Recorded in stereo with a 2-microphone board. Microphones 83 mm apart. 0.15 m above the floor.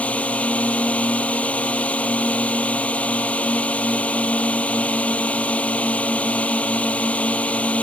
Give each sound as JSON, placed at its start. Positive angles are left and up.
{"t": 0.0, "sound": "a drone", "side_deg": 15}